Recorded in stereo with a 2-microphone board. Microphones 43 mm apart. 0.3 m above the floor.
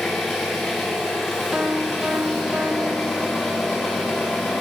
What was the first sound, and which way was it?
An engine running, centre (ahead or behind).